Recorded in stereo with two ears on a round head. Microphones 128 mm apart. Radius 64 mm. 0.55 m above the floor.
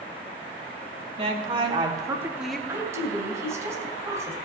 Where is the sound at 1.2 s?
45° right (ahead or behind), 2 m; by 2.6 s 5° left (ahead or behind), 1.1 m.